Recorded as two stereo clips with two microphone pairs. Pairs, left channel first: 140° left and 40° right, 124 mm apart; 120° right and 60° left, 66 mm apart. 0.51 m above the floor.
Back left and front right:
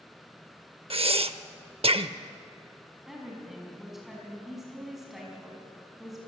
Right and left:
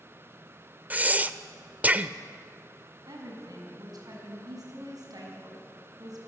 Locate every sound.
0.9 s breathing: 5° right, 0.6 m
3.1 s a woman speaking: 45° left, 5 m